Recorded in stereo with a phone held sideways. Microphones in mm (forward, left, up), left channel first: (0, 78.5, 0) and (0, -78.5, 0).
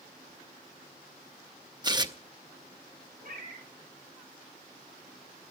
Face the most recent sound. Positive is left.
turn(degrees=-55)  # may be behind; listen again after turning